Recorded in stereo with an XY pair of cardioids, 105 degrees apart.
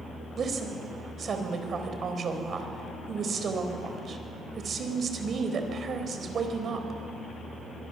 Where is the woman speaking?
50° right, 4 m.